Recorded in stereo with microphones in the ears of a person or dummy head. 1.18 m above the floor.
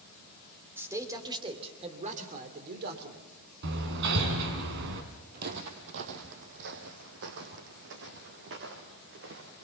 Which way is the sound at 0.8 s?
15° right (ahead or behind).